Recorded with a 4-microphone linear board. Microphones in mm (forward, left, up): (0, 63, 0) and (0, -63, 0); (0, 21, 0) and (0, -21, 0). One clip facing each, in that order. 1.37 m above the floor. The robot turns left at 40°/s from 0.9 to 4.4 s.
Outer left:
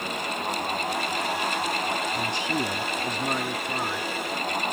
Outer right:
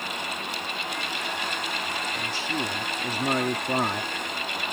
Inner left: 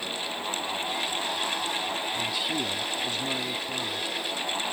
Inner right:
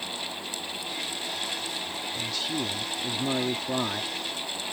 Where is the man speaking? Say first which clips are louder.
Outer left 3 dB, inner left 2 dB; 30° left; by 4.1 s 50° right.